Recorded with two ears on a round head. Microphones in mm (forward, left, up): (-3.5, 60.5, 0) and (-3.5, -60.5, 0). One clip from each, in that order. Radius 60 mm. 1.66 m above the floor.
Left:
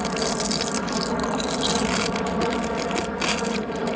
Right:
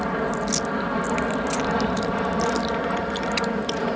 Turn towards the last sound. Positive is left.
turn(degrees=-25)  # may be behind; listen again after turning